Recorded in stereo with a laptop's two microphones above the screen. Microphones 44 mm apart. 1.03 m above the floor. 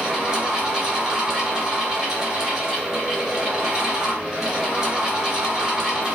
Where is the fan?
15° right (ahead or behind), 1.0 m.